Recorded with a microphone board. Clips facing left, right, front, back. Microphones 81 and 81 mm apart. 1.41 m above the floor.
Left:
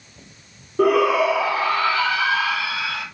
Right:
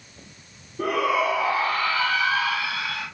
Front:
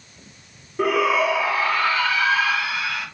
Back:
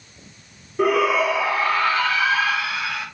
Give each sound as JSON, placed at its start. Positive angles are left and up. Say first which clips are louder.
{"t": 0.8, "sound": "a shout", "louder": "left 6 dB, back 1 dB", "azimuth_deg": 95, "distance_m": 0.8}